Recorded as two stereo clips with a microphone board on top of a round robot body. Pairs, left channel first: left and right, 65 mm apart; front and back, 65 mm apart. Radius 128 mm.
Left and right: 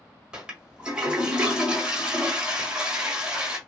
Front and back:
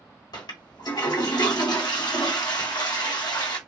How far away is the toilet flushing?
About 1.2 m.